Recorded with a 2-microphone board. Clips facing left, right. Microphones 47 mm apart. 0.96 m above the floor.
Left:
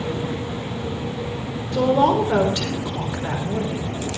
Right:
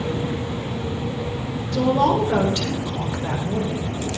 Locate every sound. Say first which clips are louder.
1.7 s a woman speaking: left 1 dB; 20° left (ahead or behind), 3.5 m